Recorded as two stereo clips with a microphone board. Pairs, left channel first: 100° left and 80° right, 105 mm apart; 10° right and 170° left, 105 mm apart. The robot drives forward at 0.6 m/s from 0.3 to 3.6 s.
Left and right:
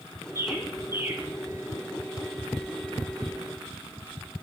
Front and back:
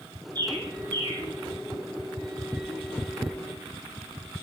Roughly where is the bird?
Behind right.